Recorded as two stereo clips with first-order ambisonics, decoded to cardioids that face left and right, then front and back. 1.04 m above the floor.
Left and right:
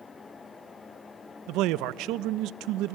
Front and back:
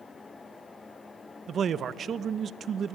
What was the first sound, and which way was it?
A man speaking, 120° right.